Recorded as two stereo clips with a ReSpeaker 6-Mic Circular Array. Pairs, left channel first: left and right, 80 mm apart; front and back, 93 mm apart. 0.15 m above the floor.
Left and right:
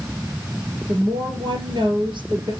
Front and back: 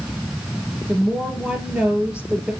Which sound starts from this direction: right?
A woman speaking, at 0.9 s.